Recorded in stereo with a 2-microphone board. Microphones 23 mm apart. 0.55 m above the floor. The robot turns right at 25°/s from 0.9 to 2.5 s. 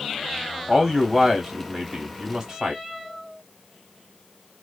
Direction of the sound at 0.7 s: 165° left.